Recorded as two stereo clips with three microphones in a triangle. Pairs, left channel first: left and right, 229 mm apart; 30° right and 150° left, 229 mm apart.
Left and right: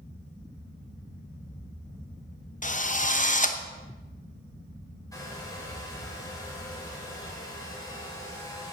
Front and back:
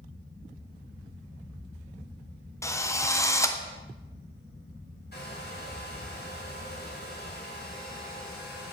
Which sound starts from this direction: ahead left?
A drill, at 2.6 s.